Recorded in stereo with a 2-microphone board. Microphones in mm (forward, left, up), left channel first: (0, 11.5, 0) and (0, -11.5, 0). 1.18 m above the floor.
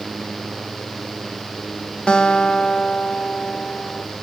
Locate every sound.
2.1 s a guitar: 45° left (ahead or behind), 0.7 m